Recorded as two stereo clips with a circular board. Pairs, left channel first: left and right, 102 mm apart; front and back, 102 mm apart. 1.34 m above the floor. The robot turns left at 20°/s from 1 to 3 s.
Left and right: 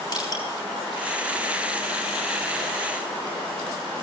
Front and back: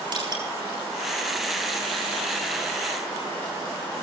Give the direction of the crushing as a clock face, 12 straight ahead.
7 o'clock.